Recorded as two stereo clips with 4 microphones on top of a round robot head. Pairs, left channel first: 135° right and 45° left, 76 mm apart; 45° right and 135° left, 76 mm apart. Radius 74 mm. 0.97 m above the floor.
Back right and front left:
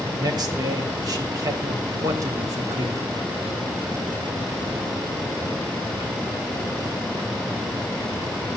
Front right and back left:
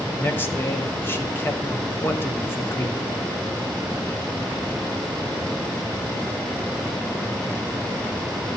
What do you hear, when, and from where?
0.2 s a man speaking: 15° left, 2.0 m